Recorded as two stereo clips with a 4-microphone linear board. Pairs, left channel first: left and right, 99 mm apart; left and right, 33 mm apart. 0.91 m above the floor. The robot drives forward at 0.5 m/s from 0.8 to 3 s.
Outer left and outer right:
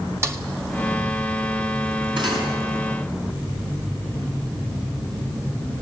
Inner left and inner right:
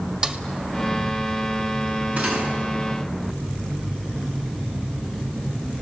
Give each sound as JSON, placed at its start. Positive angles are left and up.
{"t": 0.2, "sound": "a snare drum", "side_deg": -30, "distance_m": 1.4}
{"t": 2.2, "sound": "cutlery clinking", "side_deg": -55, "distance_m": 6.0}